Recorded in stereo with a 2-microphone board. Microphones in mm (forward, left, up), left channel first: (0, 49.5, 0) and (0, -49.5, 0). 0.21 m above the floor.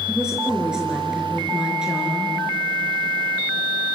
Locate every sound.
0.1 s a woman speaking: 5° right (ahead or behind), 4 m